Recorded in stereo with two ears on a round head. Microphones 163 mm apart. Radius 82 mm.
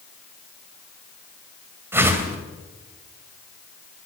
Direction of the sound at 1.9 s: 15° right (ahead or behind).